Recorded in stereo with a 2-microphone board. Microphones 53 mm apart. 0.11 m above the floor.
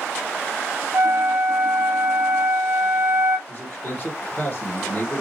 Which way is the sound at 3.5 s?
30° left (ahead or behind).